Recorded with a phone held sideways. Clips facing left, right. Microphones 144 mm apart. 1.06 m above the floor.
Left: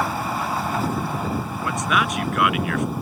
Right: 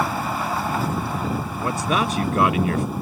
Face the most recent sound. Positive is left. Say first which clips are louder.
# right 2 dB
turn(degrees=-30)  # may be behind; listen again after turning